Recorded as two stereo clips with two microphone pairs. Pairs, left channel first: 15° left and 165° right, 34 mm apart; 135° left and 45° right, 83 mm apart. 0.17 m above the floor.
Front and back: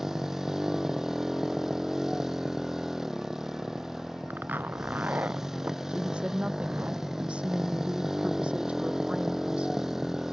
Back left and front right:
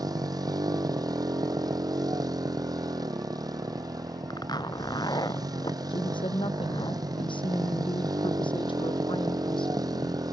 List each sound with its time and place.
0.0 s a motorcycle: 85° right
4.3 s a zipper: 170° left
5.9 s a woman speaking: 140° left